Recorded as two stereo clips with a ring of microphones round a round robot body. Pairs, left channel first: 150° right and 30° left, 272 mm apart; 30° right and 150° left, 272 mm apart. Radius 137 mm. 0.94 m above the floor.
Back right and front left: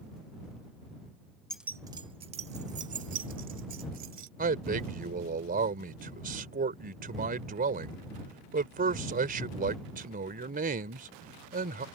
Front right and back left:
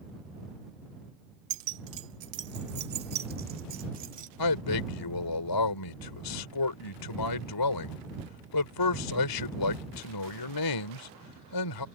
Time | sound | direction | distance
1.5 | keys jangling | 125° left | ?
4.4 | a man speaking | 30° right | ?